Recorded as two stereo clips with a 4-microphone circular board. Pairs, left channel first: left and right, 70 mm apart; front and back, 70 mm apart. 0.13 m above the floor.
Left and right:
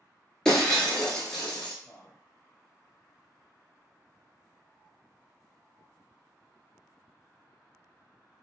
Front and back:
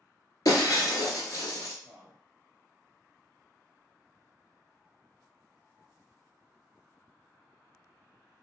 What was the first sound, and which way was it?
Breaking glass, 10° left.